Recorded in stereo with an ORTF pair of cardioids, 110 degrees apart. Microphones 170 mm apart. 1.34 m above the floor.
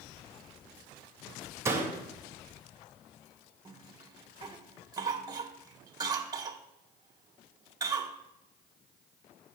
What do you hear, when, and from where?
1.6 s a door slam: 15° right, 2 m
3.6 s a cough: 20° right, 1.6 m